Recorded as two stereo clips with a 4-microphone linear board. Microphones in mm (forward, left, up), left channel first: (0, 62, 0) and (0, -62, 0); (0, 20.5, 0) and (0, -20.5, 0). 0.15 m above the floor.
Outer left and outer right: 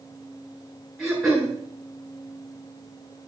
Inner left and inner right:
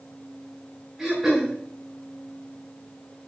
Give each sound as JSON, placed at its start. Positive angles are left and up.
{"t": 1.0, "sound": "throat clearing", "side_deg": 0, "distance_m": 7.0}